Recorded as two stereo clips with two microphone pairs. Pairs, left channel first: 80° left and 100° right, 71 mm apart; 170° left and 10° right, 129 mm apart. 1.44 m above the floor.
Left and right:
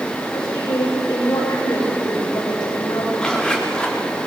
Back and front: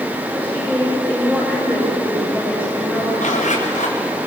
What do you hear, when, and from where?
0.3 s a woman speaking: 70° left, 8 m
3.2 s a zipper: 160° left, 4.5 m